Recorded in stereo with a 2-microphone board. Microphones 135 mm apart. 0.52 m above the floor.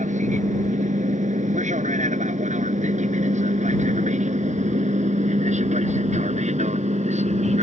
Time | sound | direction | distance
0.0 | an aircraft | 70° right (ahead or behind) | ?